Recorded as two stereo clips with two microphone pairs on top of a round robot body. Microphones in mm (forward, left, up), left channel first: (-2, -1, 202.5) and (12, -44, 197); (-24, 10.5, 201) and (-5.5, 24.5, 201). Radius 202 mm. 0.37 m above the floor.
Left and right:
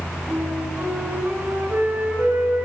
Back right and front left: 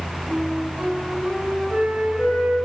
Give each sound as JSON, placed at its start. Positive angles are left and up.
{"t": 0.3, "sound": "a flute", "azimuth_deg": -20, "distance_m": 7.5}